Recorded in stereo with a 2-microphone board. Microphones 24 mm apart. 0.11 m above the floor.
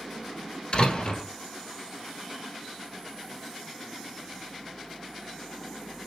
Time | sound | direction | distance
0.7 | a door slam | 40° left (ahead or behind) | 1.5 m